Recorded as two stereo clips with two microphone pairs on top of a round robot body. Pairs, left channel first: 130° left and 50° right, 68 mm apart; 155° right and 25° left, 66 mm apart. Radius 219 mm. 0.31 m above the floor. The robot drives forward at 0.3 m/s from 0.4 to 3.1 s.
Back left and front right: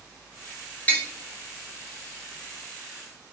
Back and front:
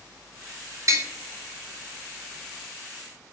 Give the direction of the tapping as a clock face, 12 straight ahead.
10 o'clock.